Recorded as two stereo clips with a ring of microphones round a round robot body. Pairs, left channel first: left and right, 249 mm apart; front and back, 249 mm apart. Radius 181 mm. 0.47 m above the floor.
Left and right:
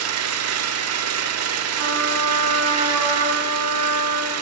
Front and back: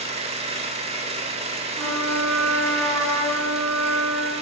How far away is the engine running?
About 0.8 m.